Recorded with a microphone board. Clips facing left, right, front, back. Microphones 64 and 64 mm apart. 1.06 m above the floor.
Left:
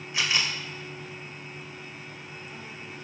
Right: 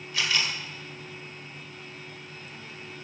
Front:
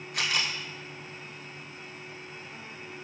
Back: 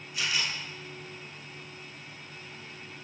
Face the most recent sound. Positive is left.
turn(degrees=25)